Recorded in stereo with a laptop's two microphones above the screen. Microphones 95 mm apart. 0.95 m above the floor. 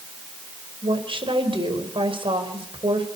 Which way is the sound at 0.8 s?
65° right (ahead or behind).